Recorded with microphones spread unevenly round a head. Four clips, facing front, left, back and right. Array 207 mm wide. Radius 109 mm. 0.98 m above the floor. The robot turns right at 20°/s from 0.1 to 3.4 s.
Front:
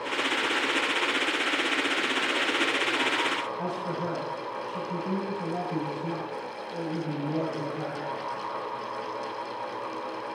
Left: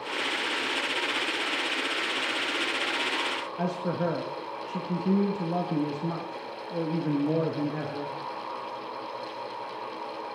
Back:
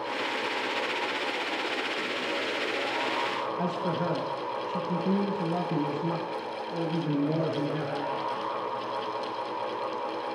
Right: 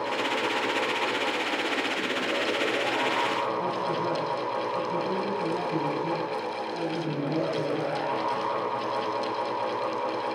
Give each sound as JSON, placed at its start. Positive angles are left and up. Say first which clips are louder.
{"t": 3.6, "sound": "a man speaking", "louder": "right 1 dB, back 2 dB", "azimuth_deg": 115, "distance_m": 0.9}